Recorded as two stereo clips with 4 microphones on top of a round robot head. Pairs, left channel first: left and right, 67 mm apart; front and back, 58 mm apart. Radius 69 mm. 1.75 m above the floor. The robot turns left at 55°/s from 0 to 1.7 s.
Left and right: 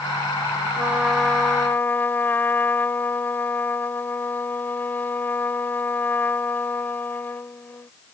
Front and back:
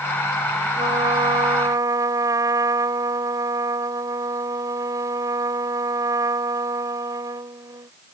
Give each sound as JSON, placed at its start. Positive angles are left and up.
{"t": 0.8, "sound": "a trumpet", "azimuth_deg": -155}